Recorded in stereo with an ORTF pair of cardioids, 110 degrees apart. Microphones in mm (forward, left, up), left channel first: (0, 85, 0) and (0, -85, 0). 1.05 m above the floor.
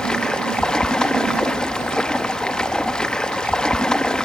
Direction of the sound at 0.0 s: 5° left.